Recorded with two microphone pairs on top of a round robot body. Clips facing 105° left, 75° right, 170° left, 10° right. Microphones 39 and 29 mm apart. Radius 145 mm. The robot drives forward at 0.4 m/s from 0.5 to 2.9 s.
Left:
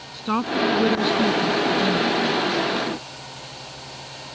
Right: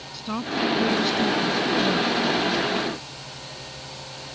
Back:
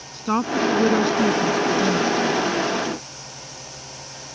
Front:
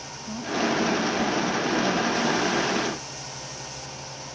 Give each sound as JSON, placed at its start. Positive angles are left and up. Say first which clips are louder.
{"t": 0.1, "sound": "a woman speaking", "louder": "left 5 dB, back 7 dB", "azimuth_deg": 160}